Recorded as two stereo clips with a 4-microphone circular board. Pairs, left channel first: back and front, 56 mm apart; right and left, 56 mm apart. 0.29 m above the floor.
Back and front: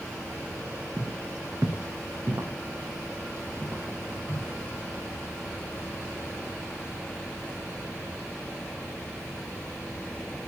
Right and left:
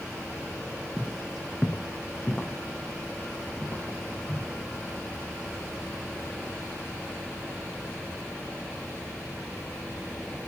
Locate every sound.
1.0 s footsteps: 5° left, 0.8 m; by 4.5 s 35° right, 3 m